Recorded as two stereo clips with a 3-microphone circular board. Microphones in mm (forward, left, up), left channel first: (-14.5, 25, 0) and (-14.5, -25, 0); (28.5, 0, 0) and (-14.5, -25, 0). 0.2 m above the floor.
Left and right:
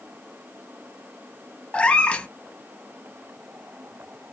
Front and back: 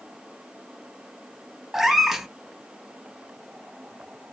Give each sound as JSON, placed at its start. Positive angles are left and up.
{"t": 1.7, "sound": "a cat meowing", "azimuth_deg": 125, "distance_m": 0.5}